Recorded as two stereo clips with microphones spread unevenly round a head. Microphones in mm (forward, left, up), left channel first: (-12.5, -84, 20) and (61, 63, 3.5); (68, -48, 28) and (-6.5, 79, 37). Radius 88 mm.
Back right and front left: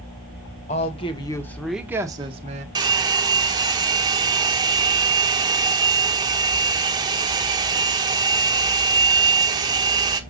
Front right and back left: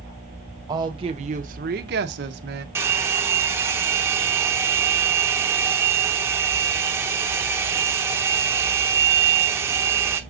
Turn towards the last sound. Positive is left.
turn(degrees=95)